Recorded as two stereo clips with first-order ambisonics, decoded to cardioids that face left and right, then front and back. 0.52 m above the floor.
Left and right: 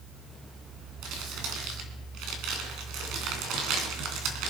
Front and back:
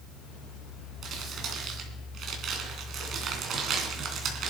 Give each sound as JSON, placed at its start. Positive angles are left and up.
{"t": 1.0, "sound": "crumpling", "azimuth_deg": -125, "distance_m": 3.0}